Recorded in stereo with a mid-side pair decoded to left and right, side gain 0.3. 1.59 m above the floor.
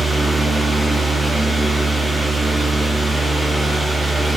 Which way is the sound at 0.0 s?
Straight ahead.